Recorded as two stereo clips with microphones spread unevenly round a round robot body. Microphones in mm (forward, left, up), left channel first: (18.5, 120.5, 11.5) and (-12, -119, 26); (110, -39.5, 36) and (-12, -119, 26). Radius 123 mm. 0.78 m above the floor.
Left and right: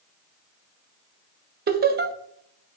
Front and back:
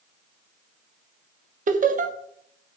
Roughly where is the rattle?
No rattle in this recording.